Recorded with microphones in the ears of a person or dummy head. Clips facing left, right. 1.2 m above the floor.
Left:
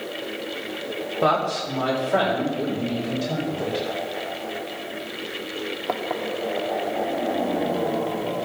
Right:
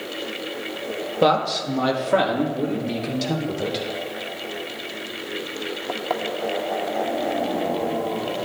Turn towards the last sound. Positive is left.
turn(degrees=-75)  # may be behind; listen again after turning